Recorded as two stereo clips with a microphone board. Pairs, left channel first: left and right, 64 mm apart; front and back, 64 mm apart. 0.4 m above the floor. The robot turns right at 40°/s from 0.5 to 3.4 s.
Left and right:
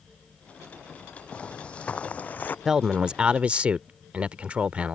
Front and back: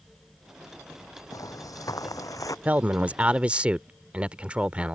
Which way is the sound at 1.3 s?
20° left.